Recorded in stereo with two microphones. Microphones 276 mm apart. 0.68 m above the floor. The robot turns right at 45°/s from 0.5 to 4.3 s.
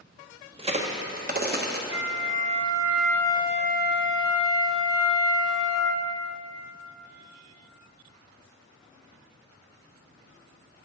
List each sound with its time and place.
0.6 s a crack: 20° right (ahead or behind), 0.8 m; by 1.8 s 35° right (ahead or behind), 0.8 m
1.9 s a flute: 50° right, 0.6 m; by 6.1 s 55° left, 0.6 m